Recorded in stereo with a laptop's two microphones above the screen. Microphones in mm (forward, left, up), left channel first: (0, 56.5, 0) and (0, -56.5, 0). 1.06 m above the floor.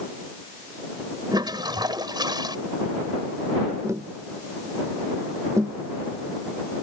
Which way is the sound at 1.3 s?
40° right (ahead or behind).